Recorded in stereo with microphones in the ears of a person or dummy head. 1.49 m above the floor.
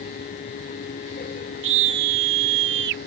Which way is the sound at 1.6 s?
70° right (ahead or behind).